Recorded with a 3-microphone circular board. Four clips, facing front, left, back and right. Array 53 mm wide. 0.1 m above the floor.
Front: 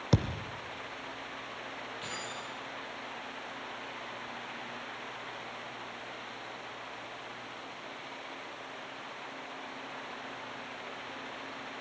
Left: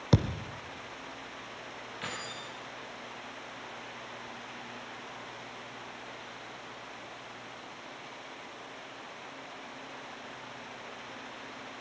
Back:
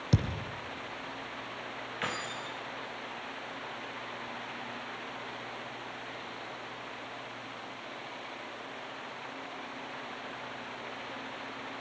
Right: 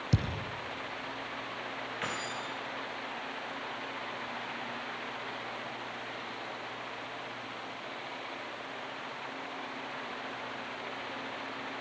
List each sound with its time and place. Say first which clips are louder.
0.1 s a thud: left 6 dB, front 1 dB; 60° left, 1.8 m
2.0 s keys jangling: right 2 dB, back 8 dB; 155° right, 6.5 m